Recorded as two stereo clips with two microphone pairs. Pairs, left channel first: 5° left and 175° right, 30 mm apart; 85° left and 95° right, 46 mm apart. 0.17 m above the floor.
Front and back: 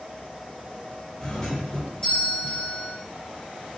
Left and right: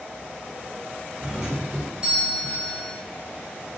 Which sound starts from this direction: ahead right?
A doorbell, at 1.2 s.